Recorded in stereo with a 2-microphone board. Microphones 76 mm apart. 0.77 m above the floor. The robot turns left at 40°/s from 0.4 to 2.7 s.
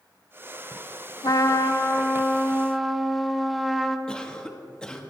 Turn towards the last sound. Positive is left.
turn(degrees=10)  # may be behind; listen again after turning